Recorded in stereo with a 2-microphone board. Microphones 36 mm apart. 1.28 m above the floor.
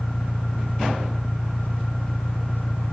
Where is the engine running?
60° left (ahead or behind).